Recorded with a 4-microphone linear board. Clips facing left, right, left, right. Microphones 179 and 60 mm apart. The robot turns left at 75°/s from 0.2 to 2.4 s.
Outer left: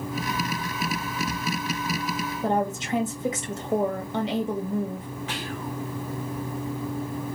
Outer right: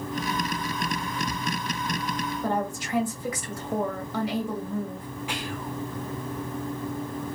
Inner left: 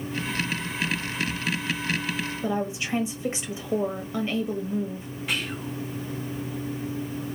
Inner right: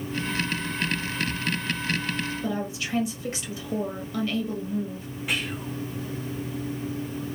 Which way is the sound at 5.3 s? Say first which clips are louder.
Even, even; 10° right (ahead or behind).